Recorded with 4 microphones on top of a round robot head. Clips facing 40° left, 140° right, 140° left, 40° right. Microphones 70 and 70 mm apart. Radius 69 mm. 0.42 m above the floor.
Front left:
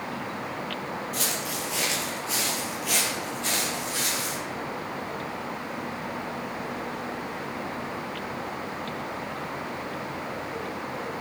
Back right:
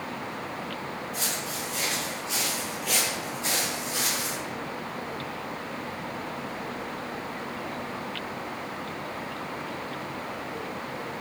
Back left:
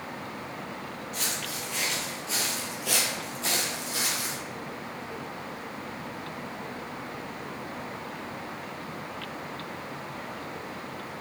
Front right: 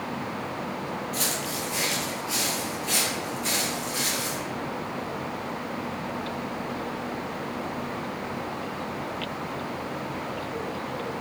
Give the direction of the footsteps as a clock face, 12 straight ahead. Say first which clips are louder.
Front left 2 dB, front right 5 dB; 12 o'clock.